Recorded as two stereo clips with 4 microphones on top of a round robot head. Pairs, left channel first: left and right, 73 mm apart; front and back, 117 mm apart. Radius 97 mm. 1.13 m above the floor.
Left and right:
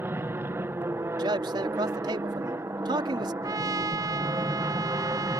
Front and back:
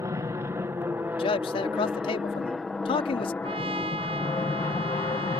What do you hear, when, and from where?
0.0 s an aircraft: 130° right; by 5.4 s 45° right
1.2 s a man speaking: 50° right
3.4 s a trumpet: 130° right